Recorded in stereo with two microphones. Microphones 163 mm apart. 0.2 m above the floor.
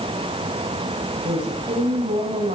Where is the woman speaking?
75° right (ahead or behind), 9 m.